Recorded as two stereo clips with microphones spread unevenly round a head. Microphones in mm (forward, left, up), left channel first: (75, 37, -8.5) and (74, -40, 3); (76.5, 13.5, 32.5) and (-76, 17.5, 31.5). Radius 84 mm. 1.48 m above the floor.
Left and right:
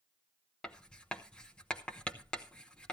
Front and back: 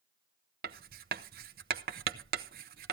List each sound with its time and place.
0.6 s writing: 175° left, 0.6 m